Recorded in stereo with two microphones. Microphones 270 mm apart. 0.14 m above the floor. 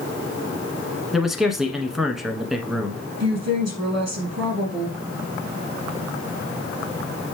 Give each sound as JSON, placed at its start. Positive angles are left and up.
{"t": 1.1, "sound": "a man speaking", "side_deg": 0, "distance_m": 1.2}
{"t": 3.2, "sound": "a woman speaking", "side_deg": -70, "distance_m": 3.5}